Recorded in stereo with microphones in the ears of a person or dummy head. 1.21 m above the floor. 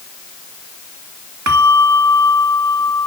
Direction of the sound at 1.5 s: 85° right.